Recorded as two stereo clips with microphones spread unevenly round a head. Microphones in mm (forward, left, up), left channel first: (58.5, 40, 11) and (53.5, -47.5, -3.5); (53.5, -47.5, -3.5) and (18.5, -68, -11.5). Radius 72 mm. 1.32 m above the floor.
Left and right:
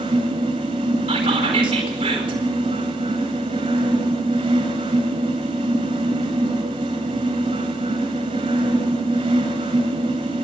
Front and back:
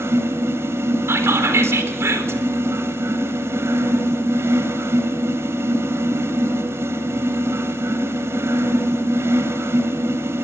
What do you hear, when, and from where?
0.0 s a fan: 150° right, 2.5 m
1.1 s whispering: 150° right, 4 m